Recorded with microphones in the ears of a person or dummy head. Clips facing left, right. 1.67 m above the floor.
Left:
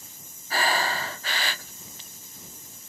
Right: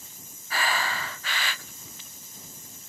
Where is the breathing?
30° left (ahead or behind).